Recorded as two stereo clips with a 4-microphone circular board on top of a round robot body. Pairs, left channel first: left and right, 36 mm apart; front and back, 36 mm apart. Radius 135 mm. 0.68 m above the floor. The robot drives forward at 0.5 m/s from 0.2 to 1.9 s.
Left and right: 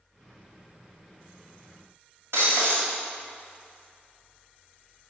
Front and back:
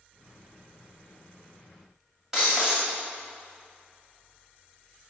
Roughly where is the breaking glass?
Right.